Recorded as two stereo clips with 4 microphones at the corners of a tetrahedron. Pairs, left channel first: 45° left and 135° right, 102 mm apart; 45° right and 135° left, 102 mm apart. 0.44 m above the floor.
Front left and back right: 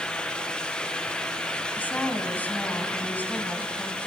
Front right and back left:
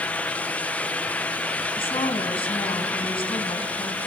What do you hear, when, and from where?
1.8 s a woman speaking: 30° right, 3 m